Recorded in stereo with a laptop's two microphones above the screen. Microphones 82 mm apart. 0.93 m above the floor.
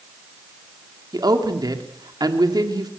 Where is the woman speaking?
50° right (ahead or behind), 2 m.